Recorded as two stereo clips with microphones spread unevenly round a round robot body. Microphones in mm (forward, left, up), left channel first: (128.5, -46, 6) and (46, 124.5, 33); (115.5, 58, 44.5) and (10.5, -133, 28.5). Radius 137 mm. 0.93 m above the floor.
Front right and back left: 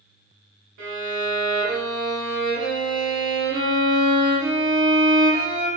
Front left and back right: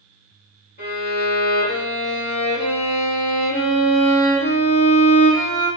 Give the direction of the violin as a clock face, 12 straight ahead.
8 o'clock.